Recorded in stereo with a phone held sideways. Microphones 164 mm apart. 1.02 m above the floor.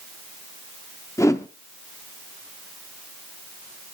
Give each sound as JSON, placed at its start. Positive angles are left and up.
{"t": 1.2, "sound": "a whoosh", "side_deg": 15, "distance_m": 0.7}